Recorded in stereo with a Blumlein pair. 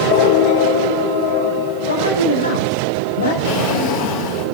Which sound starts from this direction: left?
A man speaking, at 1.9 s.